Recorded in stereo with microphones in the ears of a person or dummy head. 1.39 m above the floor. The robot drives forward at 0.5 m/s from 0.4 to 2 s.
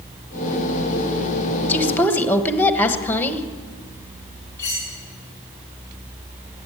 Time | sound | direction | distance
1.7 | a woman speaking | 5° left (ahead or behind) | 1.4 m
4.6 | cutlery clinking | 10° left (ahead or behind) | 4.5 m